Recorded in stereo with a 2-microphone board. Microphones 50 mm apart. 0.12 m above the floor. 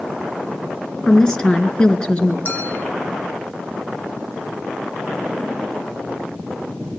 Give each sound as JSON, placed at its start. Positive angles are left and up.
{"t": 1.1, "sound": "a woman speaking", "side_deg": 20, "distance_m": 1.7}
{"t": 2.5, "sound": "a clink", "side_deg": 45, "distance_m": 3.0}